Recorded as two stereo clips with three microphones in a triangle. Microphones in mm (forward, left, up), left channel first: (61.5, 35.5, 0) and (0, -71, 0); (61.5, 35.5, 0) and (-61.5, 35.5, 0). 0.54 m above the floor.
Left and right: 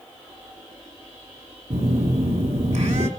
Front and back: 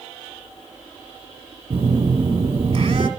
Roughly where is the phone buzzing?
Behind right.